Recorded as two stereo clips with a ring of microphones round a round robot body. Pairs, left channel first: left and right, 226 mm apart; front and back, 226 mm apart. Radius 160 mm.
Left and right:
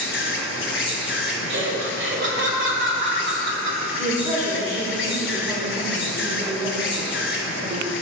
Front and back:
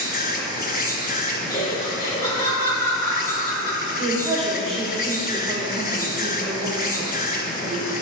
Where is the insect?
55° left, 1.0 m.